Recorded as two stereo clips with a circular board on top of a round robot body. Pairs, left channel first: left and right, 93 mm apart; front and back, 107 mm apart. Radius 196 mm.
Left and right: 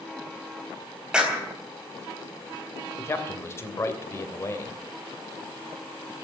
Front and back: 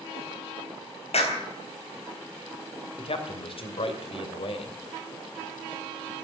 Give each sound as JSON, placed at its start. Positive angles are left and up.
{"t": 1.1, "sound": "a clap", "azimuth_deg": -10, "distance_m": 3.5}
{"t": 3.0, "sound": "a man speaking", "azimuth_deg": 30, "distance_m": 2.5}